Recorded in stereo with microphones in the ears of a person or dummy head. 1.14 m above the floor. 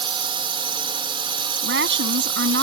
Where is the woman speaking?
65° right (ahead or behind).